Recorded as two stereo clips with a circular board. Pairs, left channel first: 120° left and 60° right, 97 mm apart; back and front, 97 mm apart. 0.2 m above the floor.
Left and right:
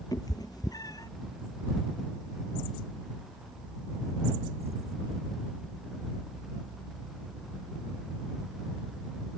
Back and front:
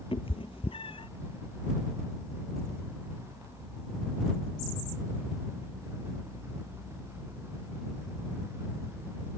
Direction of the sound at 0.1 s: 165° left.